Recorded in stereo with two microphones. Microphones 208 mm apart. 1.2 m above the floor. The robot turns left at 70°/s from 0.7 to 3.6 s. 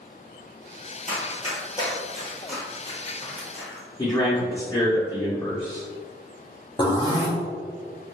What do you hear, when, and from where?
1.1 s running footsteps: 35° left (ahead or behind), 1.7 m; by 3.9 s 45° right (ahead or behind), 2 m
4.0 s a man speaking: 15° left (ahead or behind), 0.9 m
6.8 s a zipper: 20° left (ahead or behind), 0.6 m